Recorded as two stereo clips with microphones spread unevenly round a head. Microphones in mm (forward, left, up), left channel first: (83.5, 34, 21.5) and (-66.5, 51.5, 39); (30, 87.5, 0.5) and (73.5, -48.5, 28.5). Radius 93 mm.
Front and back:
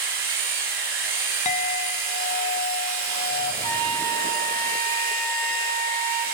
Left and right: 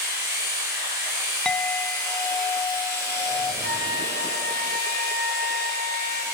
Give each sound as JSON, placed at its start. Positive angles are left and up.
{"t": 0.0, "sound": "a machine running", "azimuth_deg": -145, "distance_m": 1.4}
{"t": 1.4, "sound": "a clink", "azimuth_deg": 25, "distance_m": 0.5}
{"t": 3.6, "sound": "a trumpet", "azimuth_deg": 140, "distance_m": 2.0}